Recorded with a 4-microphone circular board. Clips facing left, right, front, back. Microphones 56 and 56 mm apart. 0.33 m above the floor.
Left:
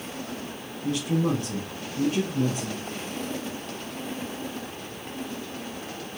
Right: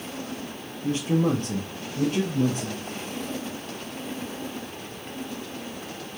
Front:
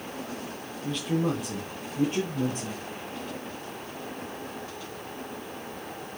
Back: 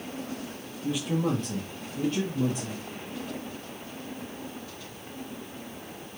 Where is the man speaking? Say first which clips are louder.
Right 2 dB, even; 120° right, 0.9 m; by 2.8 s 55° right, 1.9 m.